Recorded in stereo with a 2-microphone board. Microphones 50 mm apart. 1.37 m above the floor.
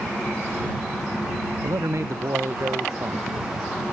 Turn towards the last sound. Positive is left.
turn(degrees=-70)  # may be behind; listen again after turning